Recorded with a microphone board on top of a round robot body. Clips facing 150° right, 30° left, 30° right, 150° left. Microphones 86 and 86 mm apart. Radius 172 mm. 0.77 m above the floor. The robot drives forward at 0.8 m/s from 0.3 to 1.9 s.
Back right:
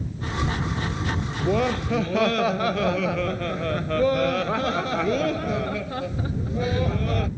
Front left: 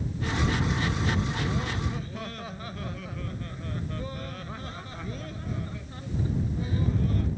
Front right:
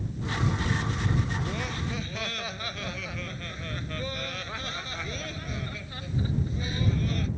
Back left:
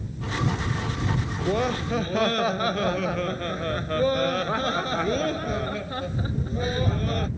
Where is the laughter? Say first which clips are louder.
Back right 8 dB, back left 8 dB; 165° right.